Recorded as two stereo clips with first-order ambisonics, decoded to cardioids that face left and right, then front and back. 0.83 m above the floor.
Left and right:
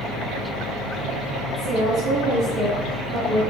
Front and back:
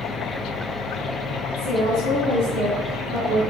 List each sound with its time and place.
1.6 s a woman speaking: 160° left, 4 m; by 3.4 s 165° left, 2.5 m